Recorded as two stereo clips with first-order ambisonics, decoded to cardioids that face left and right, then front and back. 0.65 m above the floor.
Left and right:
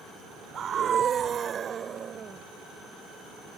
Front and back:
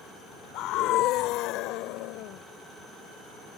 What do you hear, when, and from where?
0.5 s a scream: 30° right; by 2.4 s 25° right